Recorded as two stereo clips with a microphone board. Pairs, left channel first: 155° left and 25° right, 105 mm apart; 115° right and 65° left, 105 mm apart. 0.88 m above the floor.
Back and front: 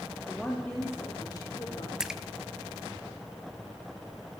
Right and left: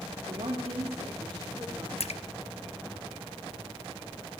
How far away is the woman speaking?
About 1.8 m.